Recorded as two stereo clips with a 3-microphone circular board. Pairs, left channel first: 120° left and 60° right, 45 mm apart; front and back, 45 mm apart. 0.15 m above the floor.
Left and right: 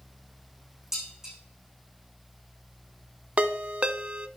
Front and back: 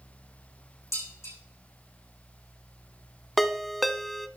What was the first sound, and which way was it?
Dishes clattering, 20° left.